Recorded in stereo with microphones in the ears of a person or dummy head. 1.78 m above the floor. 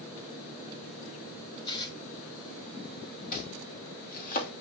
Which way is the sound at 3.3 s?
45° left (ahead or behind).